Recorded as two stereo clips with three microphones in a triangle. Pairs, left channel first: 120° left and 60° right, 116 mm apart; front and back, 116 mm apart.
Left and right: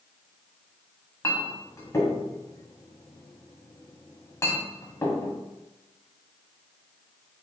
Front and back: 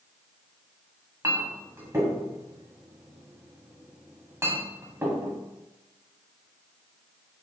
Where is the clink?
145° left, 1.0 m.